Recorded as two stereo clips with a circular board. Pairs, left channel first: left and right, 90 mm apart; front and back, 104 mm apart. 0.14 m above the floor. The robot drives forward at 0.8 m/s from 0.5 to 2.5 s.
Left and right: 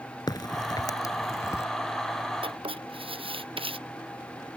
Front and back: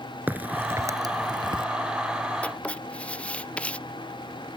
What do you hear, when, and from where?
0.3 s a crack: 110° left; by 1.6 s 145° left
2.4 s writing: 80° right